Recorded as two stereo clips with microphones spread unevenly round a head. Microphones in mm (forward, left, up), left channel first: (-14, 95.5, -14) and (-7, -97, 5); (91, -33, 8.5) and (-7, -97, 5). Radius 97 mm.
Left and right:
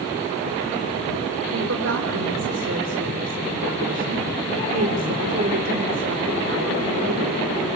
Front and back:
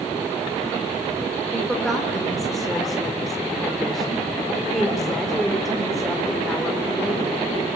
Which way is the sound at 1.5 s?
55° right.